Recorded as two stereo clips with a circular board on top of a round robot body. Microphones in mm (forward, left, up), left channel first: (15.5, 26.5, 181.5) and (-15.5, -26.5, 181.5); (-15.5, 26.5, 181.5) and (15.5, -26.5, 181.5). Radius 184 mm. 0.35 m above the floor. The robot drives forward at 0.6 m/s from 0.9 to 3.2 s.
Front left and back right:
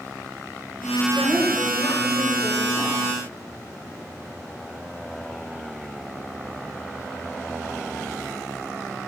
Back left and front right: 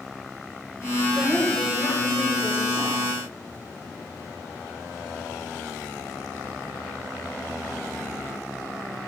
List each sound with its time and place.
1.1 s a woman speaking: 50° left, 4 m; by 3.1 s 65° left, 3 m